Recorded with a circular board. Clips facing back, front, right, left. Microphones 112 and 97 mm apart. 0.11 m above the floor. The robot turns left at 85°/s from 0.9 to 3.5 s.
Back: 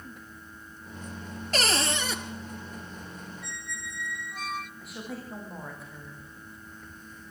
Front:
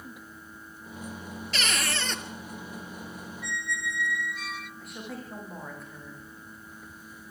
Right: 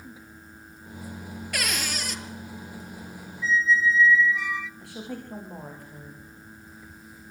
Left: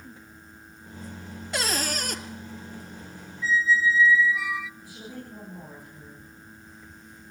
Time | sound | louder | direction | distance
1.5 | a cupboard door | back 4 dB, left 3 dB | 150° left | 1.7 m
3.4 | a squeak | front 7 dB, even | straight behind | 0.5 m
4.8 | a woman speaking | back 1 dB, right 4 dB | 90° right | 9.5 m